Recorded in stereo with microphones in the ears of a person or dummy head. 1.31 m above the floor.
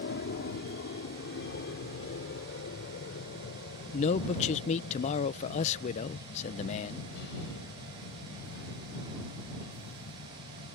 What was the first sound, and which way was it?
An aircraft, 65° left (ahead or behind).